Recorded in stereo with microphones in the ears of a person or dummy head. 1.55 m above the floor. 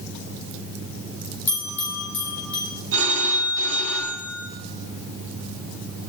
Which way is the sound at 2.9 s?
70° right (ahead or behind).